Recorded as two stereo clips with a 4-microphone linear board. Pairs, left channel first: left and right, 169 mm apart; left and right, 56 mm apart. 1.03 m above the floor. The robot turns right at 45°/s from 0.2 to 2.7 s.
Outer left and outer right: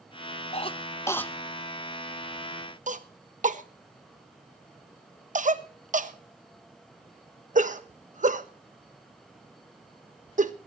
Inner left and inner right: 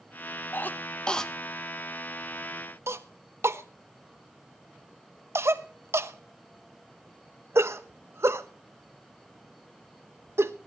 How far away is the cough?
About 1.1 m.